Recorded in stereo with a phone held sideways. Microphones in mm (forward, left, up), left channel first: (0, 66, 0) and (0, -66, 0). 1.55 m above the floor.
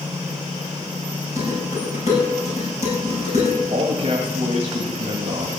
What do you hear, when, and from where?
1.4 s dishes clattering: 55° left (ahead or behind), 7.5 m
3.7 s a man speaking: 45° right (ahead or behind), 2.0 m